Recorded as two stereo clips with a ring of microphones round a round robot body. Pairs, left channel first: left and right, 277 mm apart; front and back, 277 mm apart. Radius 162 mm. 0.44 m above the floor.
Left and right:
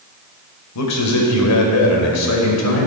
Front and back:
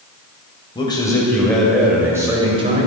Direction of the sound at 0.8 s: 75° left.